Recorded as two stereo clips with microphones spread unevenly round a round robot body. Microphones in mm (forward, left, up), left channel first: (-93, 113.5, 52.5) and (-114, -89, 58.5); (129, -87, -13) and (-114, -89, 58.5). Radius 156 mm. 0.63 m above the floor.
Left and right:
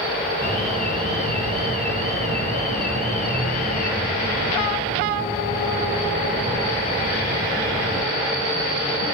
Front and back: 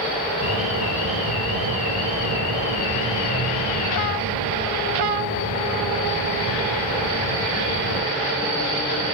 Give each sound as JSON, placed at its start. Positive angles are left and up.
{"t": 0.4, "sound": "an alarm", "azimuth_deg": 30, "distance_m": 4.0}